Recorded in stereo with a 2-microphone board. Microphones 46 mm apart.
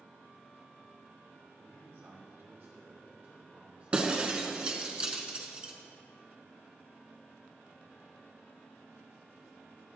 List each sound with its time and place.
1.6 s a man speaking: 80° right, 2.5 m; by 4.9 s 30° right (ahead or behind), 4.5 m
3.9 s breaking glass: 25° right (ahead or behind), 1.1 m